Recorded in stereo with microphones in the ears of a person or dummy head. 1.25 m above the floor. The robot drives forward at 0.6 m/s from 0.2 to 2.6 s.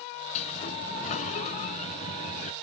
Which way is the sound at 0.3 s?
45° left (ahead or behind).